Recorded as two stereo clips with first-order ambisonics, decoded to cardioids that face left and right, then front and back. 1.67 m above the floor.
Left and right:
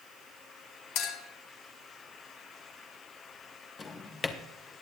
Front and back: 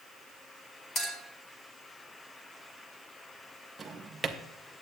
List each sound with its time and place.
0.9 s a clink: 70° left, 2.5 m
3.8 s a drawer: 125° left, 0.7 m